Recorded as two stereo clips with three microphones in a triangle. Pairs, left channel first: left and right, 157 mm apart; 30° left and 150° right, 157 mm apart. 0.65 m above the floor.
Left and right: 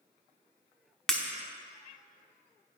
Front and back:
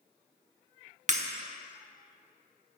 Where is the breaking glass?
175° left, 1.0 m.